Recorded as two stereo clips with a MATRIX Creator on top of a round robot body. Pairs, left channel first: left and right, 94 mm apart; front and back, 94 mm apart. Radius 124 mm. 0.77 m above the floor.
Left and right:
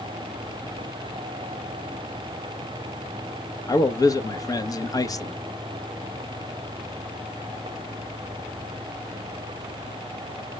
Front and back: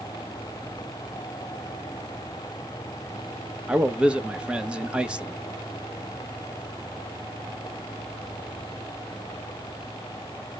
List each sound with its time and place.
3.7 s a man speaking: 105° left, 0.9 m